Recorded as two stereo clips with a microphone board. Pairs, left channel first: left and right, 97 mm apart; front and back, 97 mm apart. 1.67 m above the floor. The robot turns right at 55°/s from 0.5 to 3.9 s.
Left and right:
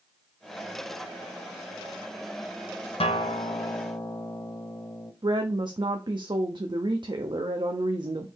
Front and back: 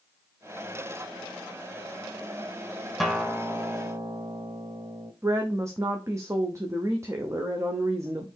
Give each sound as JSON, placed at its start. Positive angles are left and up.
{"t": 3.0, "sound": "a guitar", "azimuth_deg": 90, "distance_m": 0.6}
{"t": 5.2, "sound": "a woman speaking", "azimuth_deg": -125, "distance_m": 0.6}